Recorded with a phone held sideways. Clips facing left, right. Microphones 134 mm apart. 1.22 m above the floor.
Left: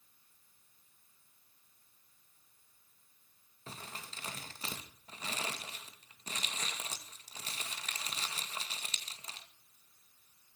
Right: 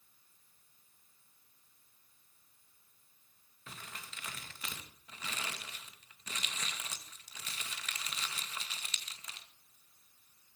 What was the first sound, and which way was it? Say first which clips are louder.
Crumpling: left 3 dB; 35° left (ahead or behind).